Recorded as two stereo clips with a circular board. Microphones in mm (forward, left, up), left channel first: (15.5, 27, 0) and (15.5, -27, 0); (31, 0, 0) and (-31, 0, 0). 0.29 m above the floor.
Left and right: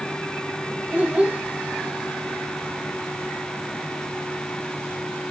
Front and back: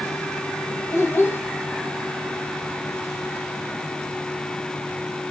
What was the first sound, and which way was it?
A child speaking, 30° right.